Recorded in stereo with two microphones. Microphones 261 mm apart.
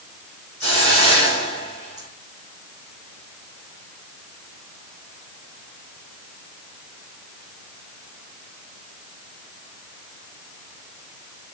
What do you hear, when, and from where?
0.6 s a hiss: 60° right (ahead or behind), 5.5 m